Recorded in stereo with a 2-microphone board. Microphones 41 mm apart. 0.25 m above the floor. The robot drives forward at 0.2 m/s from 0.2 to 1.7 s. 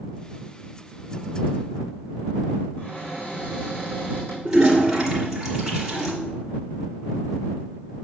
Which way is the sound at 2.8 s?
30° left (ahead or behind).